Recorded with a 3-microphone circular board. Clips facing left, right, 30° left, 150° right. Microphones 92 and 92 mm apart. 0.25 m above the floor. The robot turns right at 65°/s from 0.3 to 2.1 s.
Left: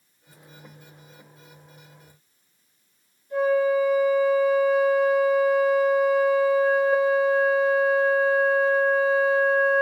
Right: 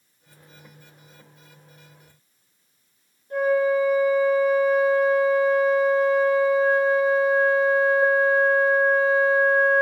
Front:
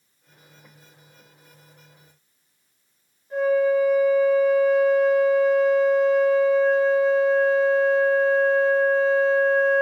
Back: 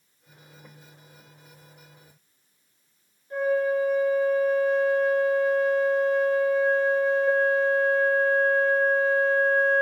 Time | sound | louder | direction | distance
3.3 | a flute | even, front 4 dB | 50° right | 1.3 m